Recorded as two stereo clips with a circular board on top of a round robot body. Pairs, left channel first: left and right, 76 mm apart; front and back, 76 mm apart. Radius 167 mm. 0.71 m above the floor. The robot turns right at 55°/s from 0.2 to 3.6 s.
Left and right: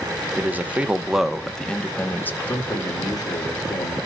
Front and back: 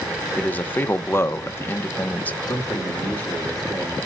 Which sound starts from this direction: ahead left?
A man speaking, at 2.5 s.